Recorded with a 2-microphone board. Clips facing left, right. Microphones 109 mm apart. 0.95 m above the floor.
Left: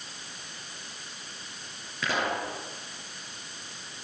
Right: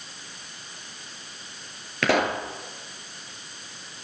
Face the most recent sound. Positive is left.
turn(degrees=-70)  # may be behind; listen again after turning